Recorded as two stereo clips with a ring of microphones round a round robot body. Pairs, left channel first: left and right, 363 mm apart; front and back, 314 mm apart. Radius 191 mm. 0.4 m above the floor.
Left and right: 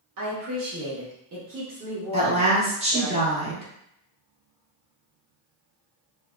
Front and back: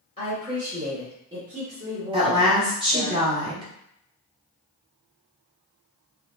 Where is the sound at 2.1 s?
130° right, 0.9 m.